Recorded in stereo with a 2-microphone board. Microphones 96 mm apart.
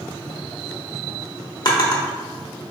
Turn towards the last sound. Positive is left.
turn(degrees=45)  # may be behind; listen again after turning